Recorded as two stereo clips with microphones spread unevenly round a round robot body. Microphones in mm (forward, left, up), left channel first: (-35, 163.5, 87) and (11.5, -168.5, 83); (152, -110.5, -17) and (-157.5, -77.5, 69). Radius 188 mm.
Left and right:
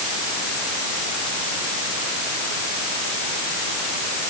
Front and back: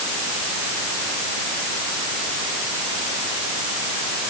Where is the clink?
No clink in this recording.